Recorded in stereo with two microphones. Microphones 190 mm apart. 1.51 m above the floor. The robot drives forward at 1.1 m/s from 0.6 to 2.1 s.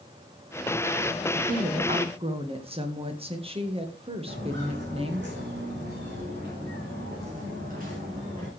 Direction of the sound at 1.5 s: 45° right (ahead or behind).